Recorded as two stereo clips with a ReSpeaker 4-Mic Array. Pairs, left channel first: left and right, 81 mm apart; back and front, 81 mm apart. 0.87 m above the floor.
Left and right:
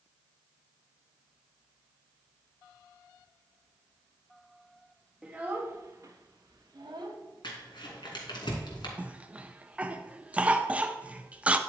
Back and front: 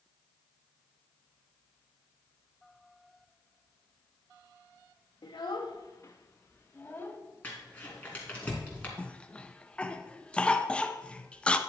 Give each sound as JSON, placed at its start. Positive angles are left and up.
{"t": 5.2, "sound": "a child speaking", "azimuth_deg": -170, "distance_m": 0.6}
{"t": 7.4, "sound": "crumpling", "azimuth_deg": 105, "distance_m": 2.5}
{"t": 9.0, "sound": "a cough", "azimuth_deg": -130, "distance_m": 0.5}